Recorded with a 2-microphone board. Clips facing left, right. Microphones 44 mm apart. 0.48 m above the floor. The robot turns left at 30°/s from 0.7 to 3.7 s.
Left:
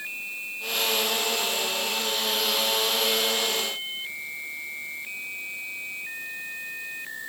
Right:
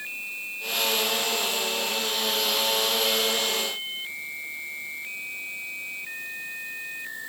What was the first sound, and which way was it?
Only background noise.